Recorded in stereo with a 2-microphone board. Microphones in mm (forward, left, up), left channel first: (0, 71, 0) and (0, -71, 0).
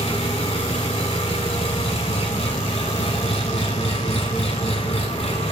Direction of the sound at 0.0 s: 45° left (ahead or behind).